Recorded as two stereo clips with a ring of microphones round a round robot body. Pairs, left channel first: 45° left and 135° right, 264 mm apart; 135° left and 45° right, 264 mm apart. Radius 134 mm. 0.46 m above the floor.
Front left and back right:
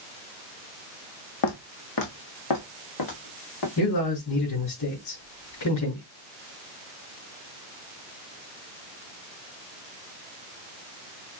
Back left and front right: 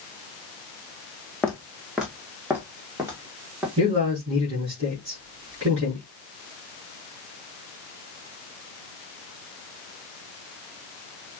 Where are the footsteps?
45° left, 1.4 m; by 3.7 s 35° left, 3 m.